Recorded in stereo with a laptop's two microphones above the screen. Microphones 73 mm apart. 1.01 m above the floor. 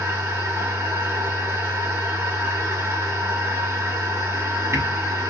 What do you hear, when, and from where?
0.0 s a machine running: 40° right (ahead or behind), 1.6 m